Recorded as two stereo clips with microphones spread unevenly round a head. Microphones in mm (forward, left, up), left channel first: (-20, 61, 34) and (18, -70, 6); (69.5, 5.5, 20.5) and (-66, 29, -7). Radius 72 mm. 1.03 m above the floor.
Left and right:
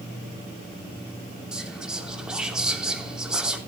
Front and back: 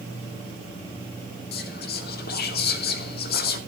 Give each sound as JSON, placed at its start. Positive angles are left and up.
{"t": 1.5, "sound": "whispering", "azimuth_deg": 10, "distance_m": 3.0}